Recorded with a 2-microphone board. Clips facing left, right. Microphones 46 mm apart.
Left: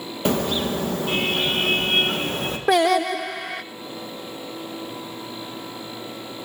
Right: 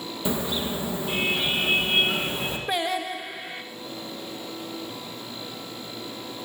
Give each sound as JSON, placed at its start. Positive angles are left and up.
{"t": 0.2, "sound": "a car horn", "side_deg": 60, "distance_m": 2.5}
{"t": 2.7, "sound": "singing", "side_deg": 75, "distance_m": 0.9}